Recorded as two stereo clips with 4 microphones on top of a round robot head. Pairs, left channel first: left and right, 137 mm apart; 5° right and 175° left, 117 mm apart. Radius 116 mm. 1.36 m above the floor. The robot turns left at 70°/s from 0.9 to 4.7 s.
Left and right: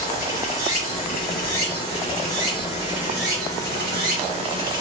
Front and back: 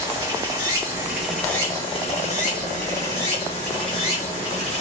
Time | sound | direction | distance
0.0 | running water | 115° left | 2.5 m